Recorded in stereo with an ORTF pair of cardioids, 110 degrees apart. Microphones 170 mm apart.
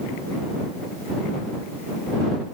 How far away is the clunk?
No clunk in this recording.